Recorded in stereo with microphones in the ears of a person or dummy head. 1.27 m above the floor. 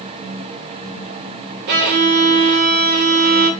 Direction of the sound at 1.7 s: 55° right (ahead or behind).